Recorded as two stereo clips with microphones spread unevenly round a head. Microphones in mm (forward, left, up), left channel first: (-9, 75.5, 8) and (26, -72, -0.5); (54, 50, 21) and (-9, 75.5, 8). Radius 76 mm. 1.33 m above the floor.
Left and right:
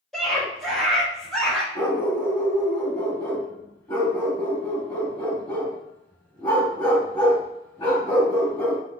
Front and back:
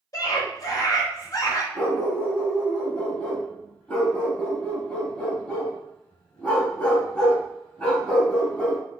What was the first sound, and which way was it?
A scream, 15° left.